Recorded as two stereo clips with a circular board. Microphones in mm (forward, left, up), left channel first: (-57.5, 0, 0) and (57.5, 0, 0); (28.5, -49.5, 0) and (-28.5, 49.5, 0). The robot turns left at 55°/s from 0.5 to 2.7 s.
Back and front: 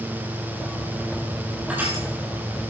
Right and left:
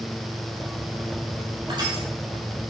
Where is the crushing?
80° left, 6 m; by 2.0 s 60° left, 6 m.